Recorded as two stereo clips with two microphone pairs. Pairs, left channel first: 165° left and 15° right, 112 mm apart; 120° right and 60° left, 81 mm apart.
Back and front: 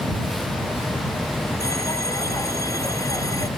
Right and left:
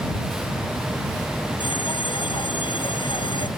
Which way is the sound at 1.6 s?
135° right.